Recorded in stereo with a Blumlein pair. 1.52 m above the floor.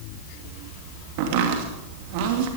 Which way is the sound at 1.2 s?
45° right.